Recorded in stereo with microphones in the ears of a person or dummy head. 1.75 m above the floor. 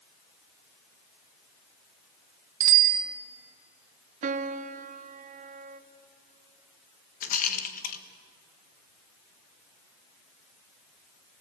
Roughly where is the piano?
Right.